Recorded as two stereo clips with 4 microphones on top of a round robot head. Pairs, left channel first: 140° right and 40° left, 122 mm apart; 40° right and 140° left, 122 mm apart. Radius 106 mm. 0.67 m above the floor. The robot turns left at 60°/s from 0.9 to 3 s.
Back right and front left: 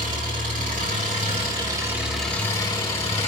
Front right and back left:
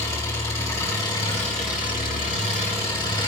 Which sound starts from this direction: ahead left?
An engine running, at 0.0 s.